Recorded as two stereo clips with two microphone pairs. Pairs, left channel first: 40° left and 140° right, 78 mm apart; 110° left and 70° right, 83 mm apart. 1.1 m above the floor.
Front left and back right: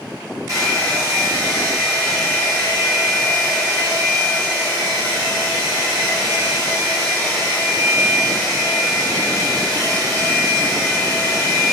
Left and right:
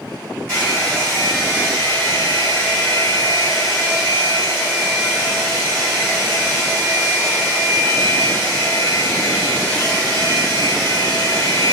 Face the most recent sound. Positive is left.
turn(degrees=170)